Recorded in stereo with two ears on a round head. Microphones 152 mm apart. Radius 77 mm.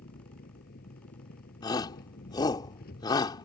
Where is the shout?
25° left (ahead or behind).